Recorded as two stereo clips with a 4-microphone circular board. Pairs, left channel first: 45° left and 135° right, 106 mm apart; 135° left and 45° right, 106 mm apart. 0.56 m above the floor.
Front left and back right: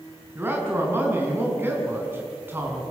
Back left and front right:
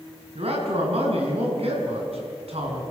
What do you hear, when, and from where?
0.3 s a man speaking: 65° right, 5.5 m